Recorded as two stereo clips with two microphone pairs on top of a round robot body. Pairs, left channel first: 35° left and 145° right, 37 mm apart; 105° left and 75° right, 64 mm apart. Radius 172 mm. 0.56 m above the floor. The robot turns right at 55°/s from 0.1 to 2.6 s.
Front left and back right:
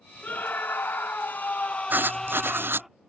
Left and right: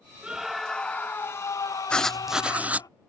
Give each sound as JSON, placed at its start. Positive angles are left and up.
{"t": 0.2, "sound": "a scream", "azimuth_deg": -5}
{"t": 1.9, "sound": "writing", "azimuth_deg": 180}